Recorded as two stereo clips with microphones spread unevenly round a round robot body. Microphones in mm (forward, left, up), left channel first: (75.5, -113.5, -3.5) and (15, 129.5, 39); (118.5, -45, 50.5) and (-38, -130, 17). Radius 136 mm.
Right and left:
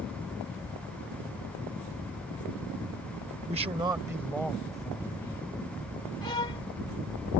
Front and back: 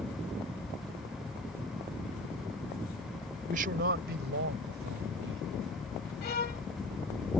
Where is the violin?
5° right.